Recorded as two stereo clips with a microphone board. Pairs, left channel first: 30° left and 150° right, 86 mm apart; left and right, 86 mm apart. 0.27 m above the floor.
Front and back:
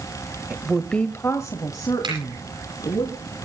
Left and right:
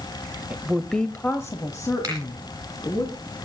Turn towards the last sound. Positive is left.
turn(degrees=-140)